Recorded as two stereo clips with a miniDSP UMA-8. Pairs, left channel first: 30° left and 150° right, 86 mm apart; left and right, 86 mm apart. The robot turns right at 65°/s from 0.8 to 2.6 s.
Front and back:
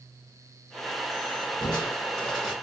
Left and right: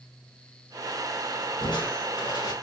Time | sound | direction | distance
1.6 | crushing | 65° left | 3 m